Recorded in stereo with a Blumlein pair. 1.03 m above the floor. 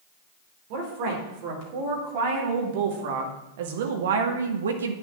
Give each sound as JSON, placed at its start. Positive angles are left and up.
{"t": 0.7, "sound": "a woman speaking", "azimuth_deg": -45, "distance_m": 4.0}